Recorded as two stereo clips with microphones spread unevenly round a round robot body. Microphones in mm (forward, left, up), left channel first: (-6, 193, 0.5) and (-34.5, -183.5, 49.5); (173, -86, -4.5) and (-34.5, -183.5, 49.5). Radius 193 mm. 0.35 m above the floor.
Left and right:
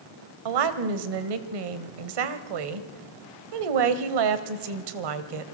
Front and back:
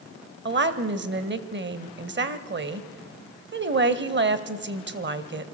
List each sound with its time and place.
0.5 s a woman speaking: 110° right, 1.9 m